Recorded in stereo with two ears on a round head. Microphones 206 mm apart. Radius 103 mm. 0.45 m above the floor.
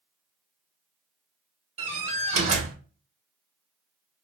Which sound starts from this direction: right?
A door slam, at 1.8 s.